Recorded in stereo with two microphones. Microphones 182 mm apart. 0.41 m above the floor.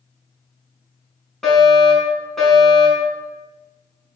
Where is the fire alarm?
Centre (ahead or behind), 6.5 m.